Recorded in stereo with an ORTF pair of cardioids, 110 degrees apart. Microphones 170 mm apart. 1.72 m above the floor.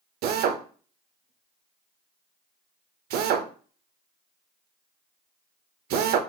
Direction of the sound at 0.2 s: 70° right.